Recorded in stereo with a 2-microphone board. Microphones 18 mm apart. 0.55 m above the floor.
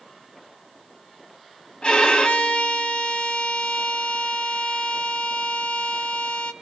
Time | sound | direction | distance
1.8 | a violin | 55° left (ahead or behind) | 1.9 m